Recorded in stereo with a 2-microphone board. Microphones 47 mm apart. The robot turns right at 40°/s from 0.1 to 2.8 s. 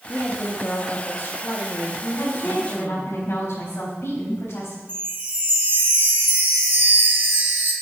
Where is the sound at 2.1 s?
70° left (ahead or behind), 4 m; by 4.8 s 75° left (ahead or behind), 4 m.